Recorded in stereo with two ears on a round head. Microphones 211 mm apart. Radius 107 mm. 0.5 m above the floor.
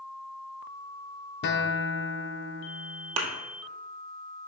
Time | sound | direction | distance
1.4 | a guitar | 45° left (ahead or behind) | 0.7 m
3.2 | a thud | 70° right (ahead or behind) | 1.5 m